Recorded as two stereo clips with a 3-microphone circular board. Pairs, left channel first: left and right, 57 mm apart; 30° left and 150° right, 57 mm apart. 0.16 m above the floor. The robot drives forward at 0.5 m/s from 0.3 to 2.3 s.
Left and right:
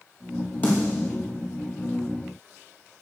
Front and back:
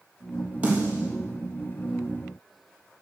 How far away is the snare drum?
About 5 m.